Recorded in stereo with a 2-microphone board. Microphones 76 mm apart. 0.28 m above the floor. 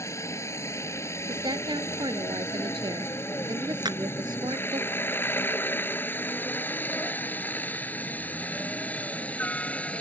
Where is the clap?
70° right (ahead or behind).